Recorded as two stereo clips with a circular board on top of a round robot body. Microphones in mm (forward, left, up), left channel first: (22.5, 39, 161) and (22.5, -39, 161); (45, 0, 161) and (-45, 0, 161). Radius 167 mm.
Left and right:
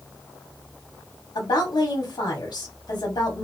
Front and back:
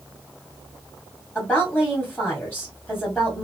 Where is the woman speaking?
90° left, 1.8 m.